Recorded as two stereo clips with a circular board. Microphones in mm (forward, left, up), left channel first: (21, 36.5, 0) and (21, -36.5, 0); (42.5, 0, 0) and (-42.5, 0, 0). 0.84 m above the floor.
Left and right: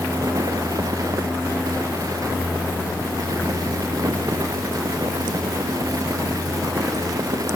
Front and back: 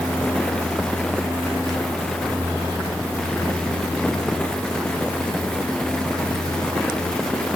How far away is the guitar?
No guitar in this recording.